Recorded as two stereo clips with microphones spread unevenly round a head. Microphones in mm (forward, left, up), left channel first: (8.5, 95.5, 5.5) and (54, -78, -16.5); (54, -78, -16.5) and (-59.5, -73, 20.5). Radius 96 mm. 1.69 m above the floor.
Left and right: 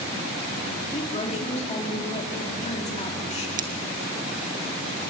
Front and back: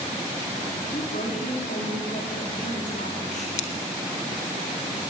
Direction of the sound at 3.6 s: 25° right.